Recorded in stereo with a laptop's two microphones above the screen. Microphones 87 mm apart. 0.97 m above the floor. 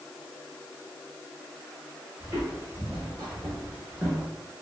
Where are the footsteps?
35° right (ahead or behind), 1.5 m; by 4.3 s 15° right (ahead or behind), 0.9 m.